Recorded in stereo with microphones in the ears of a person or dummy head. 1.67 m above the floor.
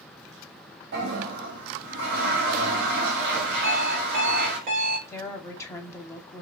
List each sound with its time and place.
0.9 s a toilet flushing: 70° right (ahead or behind), 1.9 m
3.6 s an alarm clock: 45° right (ahead or behind), 2 m
5.1 s a woman speaking: 15° left (ahead or behind), 1.5 m